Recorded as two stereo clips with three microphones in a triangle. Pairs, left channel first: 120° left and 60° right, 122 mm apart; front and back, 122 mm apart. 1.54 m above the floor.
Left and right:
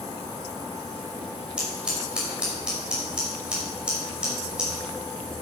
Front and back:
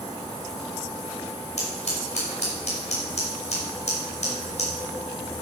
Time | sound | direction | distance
1.6 | scissors | 20° left | 6 m